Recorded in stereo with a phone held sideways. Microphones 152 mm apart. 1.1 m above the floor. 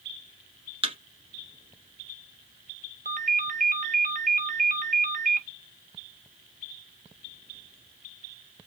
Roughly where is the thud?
Right.